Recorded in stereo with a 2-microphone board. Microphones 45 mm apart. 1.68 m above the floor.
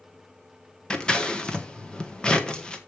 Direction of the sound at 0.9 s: 20° left (ahead or behind).